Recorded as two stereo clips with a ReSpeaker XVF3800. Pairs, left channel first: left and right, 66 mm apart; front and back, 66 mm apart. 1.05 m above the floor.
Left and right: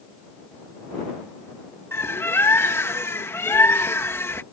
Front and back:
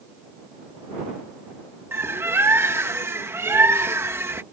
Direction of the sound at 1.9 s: 135° left.